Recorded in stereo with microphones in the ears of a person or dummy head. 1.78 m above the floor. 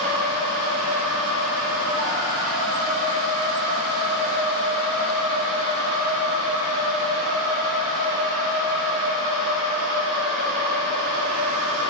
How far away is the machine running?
About 9.5 m.